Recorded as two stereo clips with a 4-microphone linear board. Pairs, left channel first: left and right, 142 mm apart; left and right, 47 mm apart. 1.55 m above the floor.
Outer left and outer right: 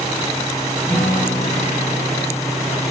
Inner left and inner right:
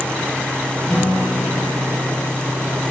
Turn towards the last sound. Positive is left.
turn(degrees=15)  # may be behind; listen again after turning